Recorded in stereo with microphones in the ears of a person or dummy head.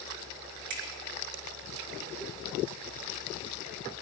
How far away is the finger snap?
About 3.5 m.